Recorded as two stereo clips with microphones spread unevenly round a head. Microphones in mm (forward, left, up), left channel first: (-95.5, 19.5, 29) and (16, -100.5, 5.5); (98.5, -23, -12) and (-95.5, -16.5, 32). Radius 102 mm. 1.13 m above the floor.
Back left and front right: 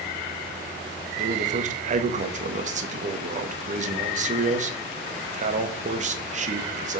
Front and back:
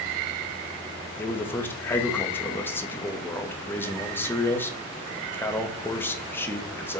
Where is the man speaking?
75° right, 1.3 m.